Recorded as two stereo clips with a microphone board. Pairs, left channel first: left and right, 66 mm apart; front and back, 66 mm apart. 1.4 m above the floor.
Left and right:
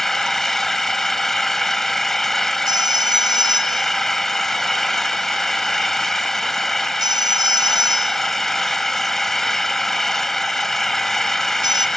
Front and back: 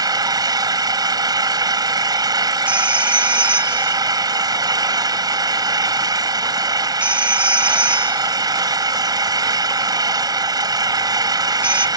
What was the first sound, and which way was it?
An engine running, 175° left.